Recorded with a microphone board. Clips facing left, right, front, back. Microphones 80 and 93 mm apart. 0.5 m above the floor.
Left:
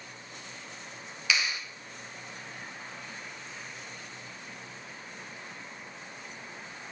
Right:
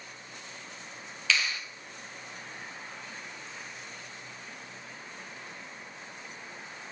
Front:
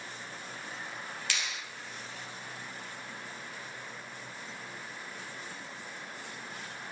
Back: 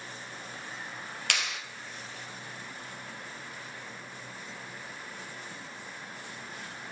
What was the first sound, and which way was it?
A clap, 165° left.